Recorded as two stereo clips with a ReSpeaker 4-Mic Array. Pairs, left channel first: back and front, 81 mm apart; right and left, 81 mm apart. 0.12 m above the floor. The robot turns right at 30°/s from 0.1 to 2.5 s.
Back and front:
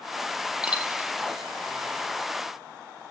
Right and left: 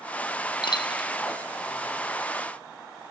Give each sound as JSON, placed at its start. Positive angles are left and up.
{"t": 0.6, "sound": "a dropped coin", "azimuth_deg": -80, "distance_m": 1.8}